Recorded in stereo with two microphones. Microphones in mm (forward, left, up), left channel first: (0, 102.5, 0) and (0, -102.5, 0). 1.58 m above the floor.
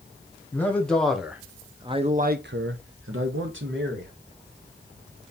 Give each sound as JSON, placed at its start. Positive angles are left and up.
{"t": 0.5, "sound": "a man speaking", "side_deg": 10, "distance_m": 1.1}